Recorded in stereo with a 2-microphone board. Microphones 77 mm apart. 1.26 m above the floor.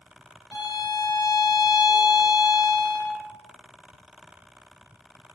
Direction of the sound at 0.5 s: 60° left (ahead or behind).